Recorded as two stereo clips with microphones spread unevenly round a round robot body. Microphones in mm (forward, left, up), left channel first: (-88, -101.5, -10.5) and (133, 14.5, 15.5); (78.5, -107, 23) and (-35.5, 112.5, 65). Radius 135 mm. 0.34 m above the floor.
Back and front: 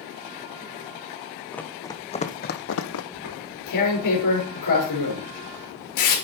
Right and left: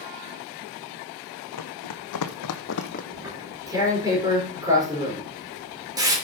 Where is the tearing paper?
165° right, 5 m.